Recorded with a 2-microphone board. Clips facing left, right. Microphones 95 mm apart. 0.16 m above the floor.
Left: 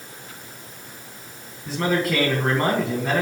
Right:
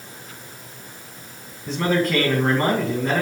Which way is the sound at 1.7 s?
5° left (ahead or behind).